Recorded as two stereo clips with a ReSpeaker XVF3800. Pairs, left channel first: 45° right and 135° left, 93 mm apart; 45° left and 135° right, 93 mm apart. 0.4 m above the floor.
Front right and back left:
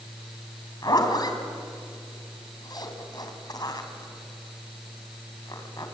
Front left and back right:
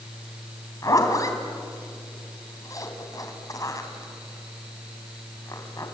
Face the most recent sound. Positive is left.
turn(degrees=-5)